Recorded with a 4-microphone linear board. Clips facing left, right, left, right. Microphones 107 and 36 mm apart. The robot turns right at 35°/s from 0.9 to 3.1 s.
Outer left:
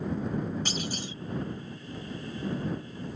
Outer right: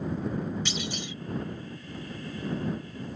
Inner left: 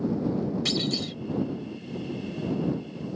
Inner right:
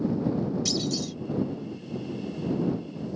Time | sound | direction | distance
0.7 | a clunk | 45° left (ahead or behind) | ?